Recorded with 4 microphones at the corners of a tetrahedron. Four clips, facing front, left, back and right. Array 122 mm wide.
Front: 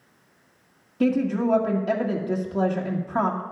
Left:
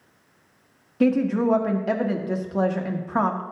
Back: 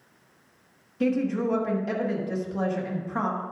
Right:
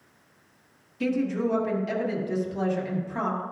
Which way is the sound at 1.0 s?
70° left.